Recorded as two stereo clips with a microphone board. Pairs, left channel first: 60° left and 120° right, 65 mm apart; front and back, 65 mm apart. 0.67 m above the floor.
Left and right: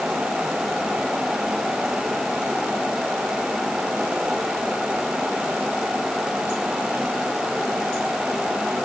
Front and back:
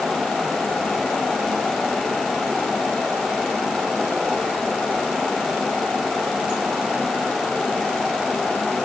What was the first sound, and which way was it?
Only background noise.